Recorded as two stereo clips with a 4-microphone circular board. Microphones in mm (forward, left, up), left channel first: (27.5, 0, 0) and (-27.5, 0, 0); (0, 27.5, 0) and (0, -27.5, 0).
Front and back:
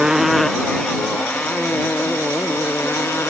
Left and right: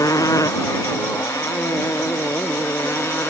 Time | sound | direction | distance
0.0 | a motorcycle | 100° left | ?